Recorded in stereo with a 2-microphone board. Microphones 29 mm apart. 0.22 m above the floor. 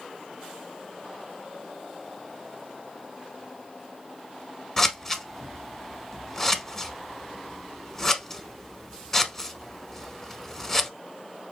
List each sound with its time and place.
4.8 s scissors: 15° left (ahead or behind), 0.7 m